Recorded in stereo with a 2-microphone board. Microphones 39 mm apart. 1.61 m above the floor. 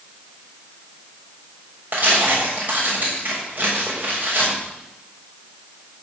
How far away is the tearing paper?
About 7 m.